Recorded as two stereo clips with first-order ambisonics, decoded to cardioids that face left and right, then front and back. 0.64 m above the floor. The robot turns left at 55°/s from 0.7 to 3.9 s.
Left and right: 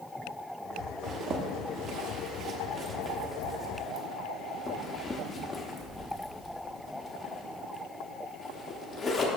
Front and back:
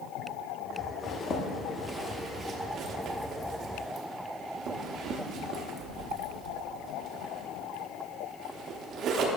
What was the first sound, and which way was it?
A zipper, 40° right.